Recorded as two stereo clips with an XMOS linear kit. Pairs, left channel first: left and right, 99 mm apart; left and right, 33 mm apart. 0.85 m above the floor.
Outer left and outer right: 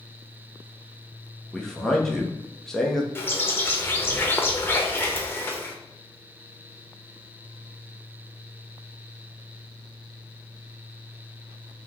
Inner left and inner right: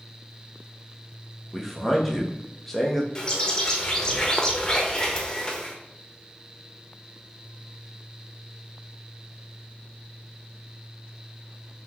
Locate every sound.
1.5 s a man speaking: 5° left (ahead or behind), 0.6 m
3.1 s a bird: 20° left (ahead or behind), 0.5 m